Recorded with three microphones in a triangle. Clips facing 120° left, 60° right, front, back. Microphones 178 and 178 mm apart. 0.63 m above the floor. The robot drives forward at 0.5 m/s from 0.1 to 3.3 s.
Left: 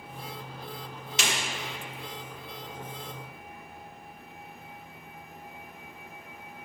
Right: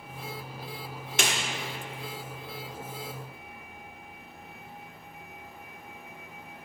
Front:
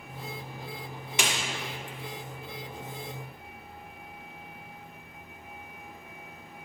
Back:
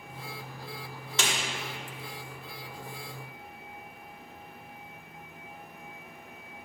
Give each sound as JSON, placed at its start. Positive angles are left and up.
{"t": 1.2, "sound": "a snare drum", "azimuth_deg": -70, "distance_m": 1.0}